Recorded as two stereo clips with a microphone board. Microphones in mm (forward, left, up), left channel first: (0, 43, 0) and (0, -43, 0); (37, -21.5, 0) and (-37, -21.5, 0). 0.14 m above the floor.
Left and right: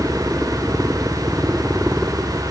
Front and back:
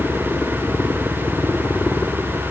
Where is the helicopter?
20° right; by 2.5 s 25° right.